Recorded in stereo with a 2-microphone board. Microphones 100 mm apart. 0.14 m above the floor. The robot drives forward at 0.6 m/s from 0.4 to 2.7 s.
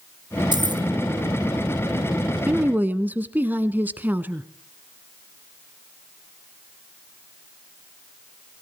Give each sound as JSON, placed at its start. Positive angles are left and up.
{"t": 0.5, "sound": "keys jangling", "side_deg": -50, "distance_m": 1.5}
{"t": 2.5, "sound": "a woman speaking", "side_deg": -20, "distance_m": 1.0}